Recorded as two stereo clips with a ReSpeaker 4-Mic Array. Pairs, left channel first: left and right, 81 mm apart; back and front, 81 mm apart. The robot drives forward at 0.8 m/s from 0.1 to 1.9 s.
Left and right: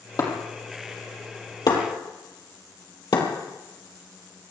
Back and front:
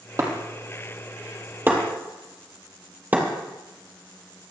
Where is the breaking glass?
50° left, 4 m; by 3.3 s 65° left, 3.5 m.